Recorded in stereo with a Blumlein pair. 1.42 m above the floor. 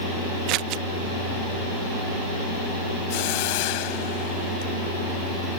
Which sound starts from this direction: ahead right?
Scissors, at 0.5 s.